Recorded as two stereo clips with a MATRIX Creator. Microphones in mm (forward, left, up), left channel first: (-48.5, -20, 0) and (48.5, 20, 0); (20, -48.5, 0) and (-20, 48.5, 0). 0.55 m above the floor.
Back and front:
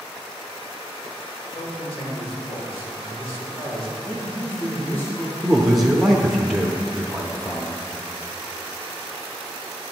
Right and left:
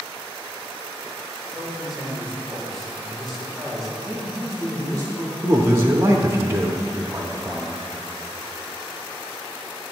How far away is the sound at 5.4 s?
About 0.6 m.